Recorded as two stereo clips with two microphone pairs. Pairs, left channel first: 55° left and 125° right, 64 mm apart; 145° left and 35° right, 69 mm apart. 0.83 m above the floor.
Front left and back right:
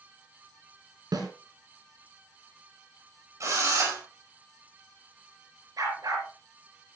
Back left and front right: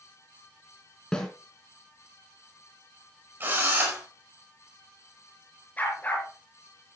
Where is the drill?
95° right, 5 m.